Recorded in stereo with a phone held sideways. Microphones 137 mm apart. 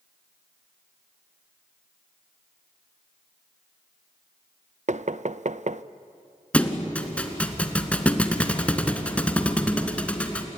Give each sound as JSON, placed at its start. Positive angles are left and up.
{"t": 4.9, "sound": "knocking", "side_deg": -60, "distance_m": 0.6}
{"t": 6.5, "sound": "a thud", "side_deg": 10, "distance_m": 1.5}